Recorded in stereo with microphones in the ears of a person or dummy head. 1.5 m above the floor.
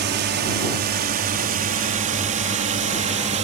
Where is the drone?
50° right (ahead or behind); by 3.4 s 35° right (ahead or behind).